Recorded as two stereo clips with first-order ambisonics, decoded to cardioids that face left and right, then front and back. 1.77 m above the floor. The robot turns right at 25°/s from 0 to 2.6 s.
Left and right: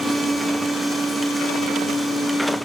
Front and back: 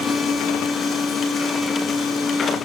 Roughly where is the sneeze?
No sneeze in this recording.